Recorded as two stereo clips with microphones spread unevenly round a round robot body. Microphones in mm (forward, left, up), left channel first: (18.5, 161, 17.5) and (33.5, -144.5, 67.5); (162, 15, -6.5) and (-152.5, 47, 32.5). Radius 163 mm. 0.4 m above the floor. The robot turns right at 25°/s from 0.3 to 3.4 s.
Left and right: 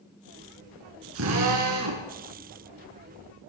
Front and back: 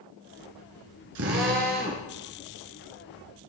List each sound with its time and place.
1.1 s a drill: 135° right, 3 m; by 2.1 s 115° right, 3 m